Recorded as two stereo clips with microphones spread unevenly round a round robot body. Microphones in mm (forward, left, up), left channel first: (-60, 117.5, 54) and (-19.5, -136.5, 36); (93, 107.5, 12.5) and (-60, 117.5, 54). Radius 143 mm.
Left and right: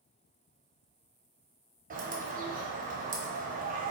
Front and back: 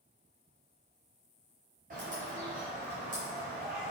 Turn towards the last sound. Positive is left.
turn(degrees=-135)